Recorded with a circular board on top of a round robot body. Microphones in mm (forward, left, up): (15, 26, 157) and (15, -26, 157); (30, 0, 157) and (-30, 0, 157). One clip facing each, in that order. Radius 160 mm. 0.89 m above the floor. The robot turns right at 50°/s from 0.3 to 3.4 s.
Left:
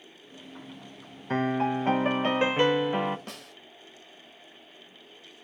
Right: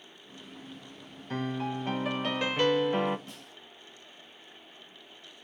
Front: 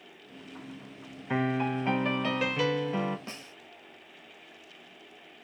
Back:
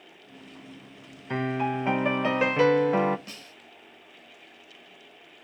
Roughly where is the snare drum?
Ahead left.